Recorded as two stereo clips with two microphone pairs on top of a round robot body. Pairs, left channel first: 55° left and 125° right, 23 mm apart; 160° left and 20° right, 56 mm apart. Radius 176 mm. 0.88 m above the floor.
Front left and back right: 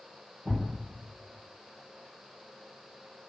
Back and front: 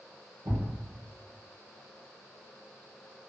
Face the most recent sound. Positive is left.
turn(degrees=-35)